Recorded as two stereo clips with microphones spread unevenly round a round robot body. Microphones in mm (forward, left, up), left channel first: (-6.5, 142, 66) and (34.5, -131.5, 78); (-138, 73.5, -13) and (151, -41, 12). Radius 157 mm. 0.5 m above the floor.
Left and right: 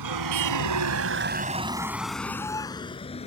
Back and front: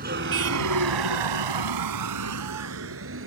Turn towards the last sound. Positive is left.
turn(degrees=30)